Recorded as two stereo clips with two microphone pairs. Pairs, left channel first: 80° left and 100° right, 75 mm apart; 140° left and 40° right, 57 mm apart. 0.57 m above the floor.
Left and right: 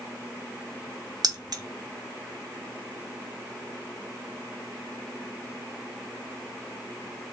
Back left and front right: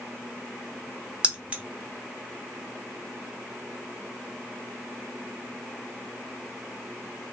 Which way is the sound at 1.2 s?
100° right.